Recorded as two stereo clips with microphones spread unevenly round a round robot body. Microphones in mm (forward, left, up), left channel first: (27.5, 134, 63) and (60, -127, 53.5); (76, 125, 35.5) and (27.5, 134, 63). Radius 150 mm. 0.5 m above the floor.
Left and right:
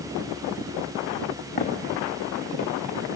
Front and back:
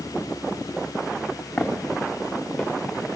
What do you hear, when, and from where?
1.6 s footsteps: 40° left, 3 m; by 2.7 s 45° left, 5 m